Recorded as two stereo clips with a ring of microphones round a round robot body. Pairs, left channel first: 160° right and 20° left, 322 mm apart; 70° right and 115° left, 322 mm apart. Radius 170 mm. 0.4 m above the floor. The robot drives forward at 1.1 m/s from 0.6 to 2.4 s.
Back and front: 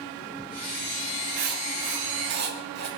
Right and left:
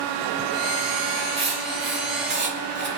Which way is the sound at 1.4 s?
40° left.